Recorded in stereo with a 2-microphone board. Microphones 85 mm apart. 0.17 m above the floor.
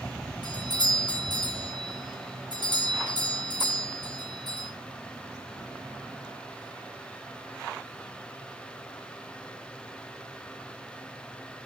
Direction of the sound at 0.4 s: 60° left (ahead or behind).